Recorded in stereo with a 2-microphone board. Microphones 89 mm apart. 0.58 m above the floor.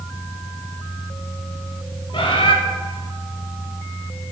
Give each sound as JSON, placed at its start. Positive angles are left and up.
{"t": 2.1, "sound": "a bird", "side_deg": 75, "distance_m": 1.0}